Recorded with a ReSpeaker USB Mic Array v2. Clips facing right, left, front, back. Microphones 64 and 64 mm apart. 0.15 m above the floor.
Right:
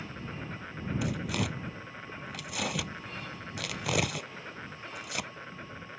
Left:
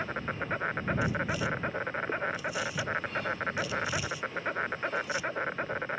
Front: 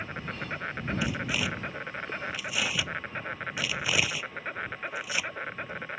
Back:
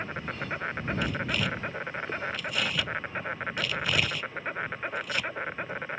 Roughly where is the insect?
Left.